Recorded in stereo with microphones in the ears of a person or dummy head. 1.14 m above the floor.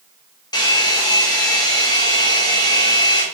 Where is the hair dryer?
15° left (ahead or behind), 0.5 m.